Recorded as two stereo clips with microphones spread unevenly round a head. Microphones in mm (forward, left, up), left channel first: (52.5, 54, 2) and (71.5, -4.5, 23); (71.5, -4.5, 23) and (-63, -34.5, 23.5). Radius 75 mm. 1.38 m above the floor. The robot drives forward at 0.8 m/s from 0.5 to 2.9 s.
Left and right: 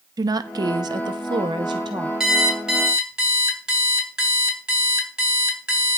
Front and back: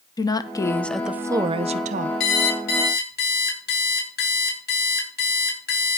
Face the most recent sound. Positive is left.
turn(degrees=0)